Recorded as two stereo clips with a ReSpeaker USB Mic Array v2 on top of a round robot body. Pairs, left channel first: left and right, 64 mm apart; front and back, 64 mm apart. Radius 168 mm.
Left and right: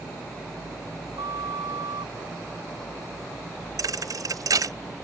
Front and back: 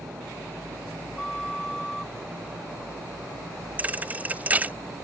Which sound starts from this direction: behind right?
A thud, at 3.8 s.